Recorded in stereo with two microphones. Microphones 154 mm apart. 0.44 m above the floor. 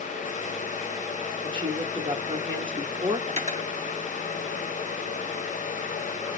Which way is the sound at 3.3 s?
50° right (ahead or behind).